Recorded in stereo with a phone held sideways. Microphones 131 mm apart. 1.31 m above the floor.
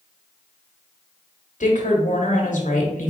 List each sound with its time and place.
1.6 s a woman speaking: 70° left (ahead or behind), 1.2 m